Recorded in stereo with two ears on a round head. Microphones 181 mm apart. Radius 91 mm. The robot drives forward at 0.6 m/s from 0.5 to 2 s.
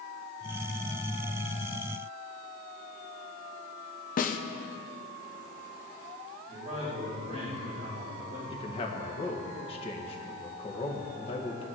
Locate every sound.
4.2 s a snare drum: 45° left (ahead or behind), 0.9 m
6.5 s a man speaking: 35° right (ahead or behind), 5 m
8.5 s a man speaking: 30° left (ahead or behind), 1.7 m